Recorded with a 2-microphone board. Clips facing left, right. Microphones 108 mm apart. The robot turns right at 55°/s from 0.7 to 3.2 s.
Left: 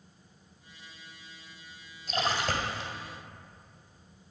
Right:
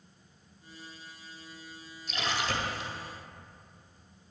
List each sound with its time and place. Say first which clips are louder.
2.1 s a splash: left 3 dB; 95° left, 1.8 m; by 2.9 s 140° left, 1.8 m